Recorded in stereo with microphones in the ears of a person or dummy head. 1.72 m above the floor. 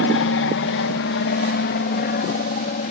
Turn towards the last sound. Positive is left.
turn(degrees=40)  # may be behind; listen again after turning